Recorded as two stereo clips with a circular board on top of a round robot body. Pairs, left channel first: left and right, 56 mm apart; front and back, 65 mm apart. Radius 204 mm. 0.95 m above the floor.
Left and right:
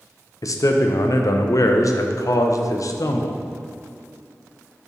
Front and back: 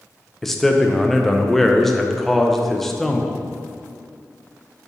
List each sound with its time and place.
0.4 s a man speaking: 85° left, 0.8 m